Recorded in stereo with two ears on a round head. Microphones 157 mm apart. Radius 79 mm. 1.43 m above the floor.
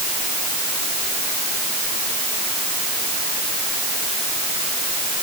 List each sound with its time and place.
Only background noise.